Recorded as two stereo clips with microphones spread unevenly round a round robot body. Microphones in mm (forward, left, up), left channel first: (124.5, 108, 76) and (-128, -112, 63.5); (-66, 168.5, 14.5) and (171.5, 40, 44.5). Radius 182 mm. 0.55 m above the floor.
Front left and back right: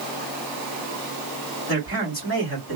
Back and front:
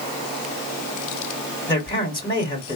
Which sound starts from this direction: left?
A man speaking, at 1.7 s.